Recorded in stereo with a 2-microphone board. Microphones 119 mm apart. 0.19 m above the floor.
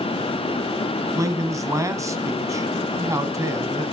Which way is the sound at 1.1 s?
25° right (ahead or behind).